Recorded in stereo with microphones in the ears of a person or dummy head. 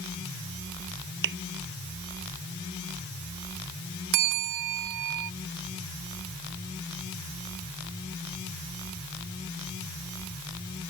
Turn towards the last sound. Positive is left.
turn(degrees=-60)  # may be behind; listen again after turning